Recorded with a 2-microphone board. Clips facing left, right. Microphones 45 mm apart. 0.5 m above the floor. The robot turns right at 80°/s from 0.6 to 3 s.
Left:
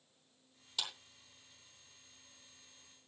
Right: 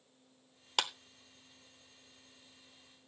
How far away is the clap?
About 0.9 m.